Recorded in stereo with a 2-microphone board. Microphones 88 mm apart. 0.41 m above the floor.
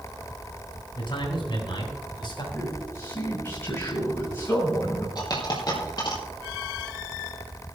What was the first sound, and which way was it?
A man speaking, 70° left (ahead or behind).